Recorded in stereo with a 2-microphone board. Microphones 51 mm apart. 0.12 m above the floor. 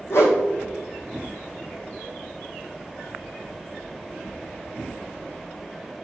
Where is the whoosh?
55° left (ahead or behind), 3 m.